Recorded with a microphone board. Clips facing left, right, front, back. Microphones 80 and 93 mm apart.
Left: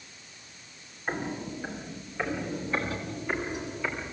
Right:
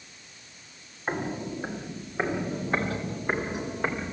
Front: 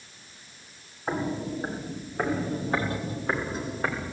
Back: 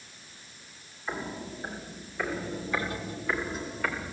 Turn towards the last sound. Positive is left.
turn(degrees=-55)